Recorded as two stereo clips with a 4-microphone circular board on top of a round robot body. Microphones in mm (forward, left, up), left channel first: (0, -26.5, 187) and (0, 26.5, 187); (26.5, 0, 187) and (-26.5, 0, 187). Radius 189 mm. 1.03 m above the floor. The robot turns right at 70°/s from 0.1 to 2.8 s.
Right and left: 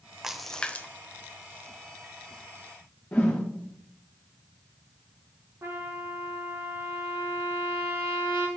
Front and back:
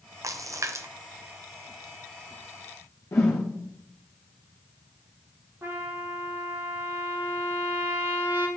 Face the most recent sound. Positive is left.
turn(degrees=135)